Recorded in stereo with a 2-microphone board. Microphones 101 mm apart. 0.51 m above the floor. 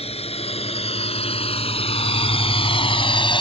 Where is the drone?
80° left; by 3.4 s 55° left (ahead or behind).